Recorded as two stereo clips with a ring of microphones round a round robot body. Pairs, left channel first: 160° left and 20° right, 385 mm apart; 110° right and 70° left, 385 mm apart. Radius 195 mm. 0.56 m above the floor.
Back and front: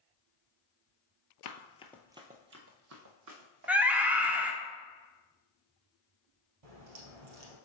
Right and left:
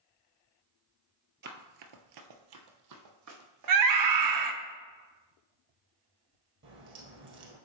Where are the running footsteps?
125° left, 0.7 m; by 4.6 s 15° left, 3 m.